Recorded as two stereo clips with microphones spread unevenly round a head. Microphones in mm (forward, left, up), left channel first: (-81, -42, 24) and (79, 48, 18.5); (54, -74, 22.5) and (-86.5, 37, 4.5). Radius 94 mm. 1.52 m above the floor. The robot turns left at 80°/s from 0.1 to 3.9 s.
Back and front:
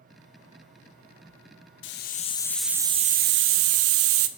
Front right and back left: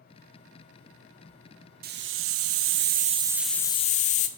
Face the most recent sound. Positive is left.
turn(degrees=15)